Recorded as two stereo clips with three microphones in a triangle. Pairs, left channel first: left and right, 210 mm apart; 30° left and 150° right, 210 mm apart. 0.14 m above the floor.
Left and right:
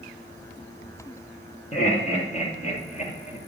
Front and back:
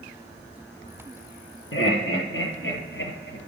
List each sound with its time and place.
1.7 s laughter: 35° left, 5 m; by 3.4 s 40° left, 3 m